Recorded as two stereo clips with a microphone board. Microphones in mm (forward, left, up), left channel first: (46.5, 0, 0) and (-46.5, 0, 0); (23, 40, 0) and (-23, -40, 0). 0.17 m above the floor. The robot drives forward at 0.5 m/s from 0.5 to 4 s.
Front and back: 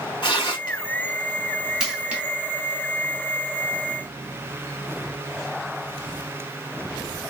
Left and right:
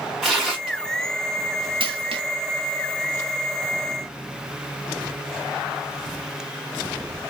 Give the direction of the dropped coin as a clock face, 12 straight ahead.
3 o'clock.